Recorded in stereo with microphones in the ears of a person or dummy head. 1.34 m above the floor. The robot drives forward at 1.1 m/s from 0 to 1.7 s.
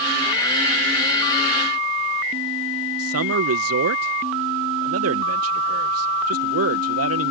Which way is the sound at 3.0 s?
75° right (ahead or behind).